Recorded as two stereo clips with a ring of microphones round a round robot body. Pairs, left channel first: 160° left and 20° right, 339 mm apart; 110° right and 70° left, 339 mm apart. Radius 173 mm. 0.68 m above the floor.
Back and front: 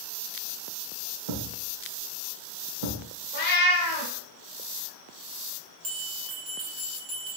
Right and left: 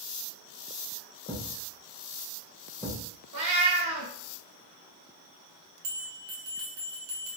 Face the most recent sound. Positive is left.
turn(degrees=25)